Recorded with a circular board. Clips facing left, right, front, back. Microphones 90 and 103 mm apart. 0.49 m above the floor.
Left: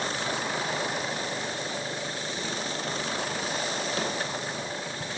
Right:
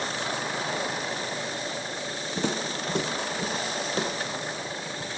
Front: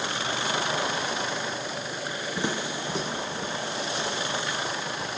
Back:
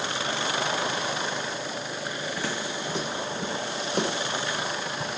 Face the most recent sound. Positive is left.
turn(degrees=170)